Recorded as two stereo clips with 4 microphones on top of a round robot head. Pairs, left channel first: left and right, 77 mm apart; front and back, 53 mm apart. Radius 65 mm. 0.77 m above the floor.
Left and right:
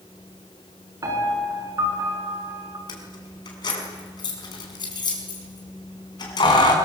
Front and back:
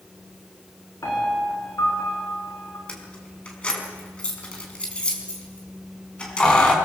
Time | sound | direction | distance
1.0 | a piano | 50° right | 6 m
2.9 | keys jangling | 70° left | 5 m